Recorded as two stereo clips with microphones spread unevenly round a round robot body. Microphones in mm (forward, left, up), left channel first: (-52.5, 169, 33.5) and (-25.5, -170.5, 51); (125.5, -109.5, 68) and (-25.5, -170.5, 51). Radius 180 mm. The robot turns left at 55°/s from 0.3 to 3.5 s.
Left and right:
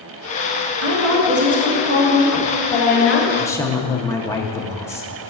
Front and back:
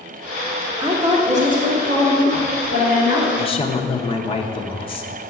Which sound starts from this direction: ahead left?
A woman speaking, at 3.4 s.